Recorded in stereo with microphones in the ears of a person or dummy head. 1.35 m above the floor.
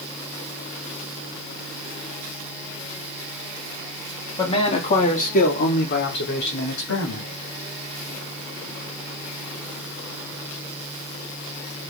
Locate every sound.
4.4 s a man speaking: 25° left (ahead or behind), 3.5 m; by 7.3 s 80° left, 4 m